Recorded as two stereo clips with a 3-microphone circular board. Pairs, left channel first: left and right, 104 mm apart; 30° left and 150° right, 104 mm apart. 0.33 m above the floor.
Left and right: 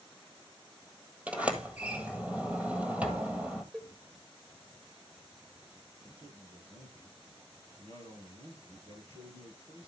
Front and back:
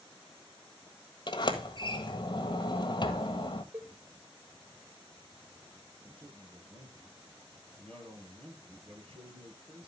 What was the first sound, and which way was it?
A sliding door, 15° right.